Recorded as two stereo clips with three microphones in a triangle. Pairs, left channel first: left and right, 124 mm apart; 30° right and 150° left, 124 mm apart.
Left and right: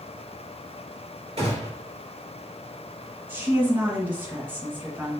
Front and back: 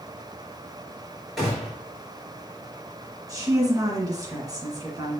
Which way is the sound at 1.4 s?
120° right.